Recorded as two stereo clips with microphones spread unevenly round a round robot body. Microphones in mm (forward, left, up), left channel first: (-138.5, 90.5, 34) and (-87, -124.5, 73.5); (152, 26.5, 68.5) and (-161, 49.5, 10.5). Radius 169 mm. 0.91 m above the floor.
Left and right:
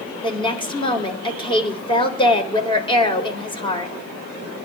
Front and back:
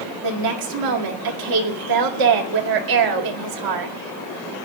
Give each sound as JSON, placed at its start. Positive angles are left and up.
{"t": 0.2, "sound": "a woman speaking", "azimuth_deg": 170, "distance_m": 4.0}